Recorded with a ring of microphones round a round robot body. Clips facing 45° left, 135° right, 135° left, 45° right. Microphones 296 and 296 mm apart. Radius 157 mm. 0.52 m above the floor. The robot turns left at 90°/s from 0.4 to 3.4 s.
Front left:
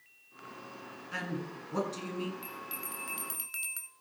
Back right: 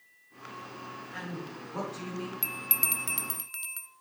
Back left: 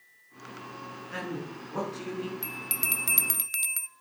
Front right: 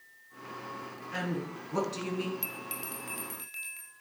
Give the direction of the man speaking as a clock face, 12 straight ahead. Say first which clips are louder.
Front left 2 dB, front right 1 dB; 10 o'clock.